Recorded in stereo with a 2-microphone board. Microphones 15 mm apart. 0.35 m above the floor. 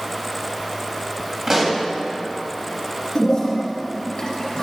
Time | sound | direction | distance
1.5 | a pop | 30° right (ahead or behind) | 2 m
3.1 | a toilet flushing | 35° left (ahead or behind) | 3.5 m